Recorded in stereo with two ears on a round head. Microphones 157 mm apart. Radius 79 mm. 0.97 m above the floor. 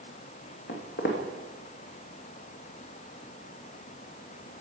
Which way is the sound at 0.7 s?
55° left (ahead or behind).